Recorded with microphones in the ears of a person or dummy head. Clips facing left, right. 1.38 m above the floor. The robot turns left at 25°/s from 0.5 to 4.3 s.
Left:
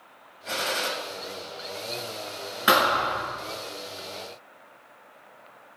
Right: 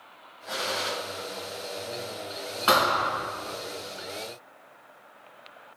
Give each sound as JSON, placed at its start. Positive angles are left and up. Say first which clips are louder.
{"t": 0.5, "sound": "a gunshot", "louder": "left 2 dB", "side_deg": 40, "distance_m": 0.8}
{"t": 2.7, "sound": "a thud", "louder": "left 1 dB", "side_deg": 25, "distance_m": 1.9}